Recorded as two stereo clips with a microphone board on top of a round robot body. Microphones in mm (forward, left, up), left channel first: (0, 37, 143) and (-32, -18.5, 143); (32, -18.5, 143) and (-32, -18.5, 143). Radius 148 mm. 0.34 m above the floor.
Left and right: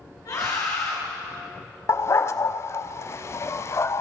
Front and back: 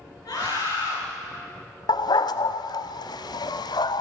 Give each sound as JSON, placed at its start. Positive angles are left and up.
{"t": 0.2, "sound": "a scream", "azimuth_deg": 25, "distance_m": 7.5}
{"t": 1.9, "sound": "a dog barking", "azimuth_deg": 10, "distance_m": 0.6}